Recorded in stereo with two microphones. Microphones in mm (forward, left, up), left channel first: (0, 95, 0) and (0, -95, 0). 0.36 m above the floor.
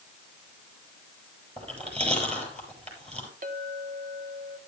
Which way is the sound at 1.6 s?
35° right (ahead or behind).